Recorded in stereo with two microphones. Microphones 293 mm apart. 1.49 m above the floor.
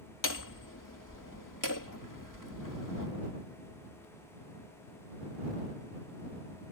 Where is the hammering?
80° left.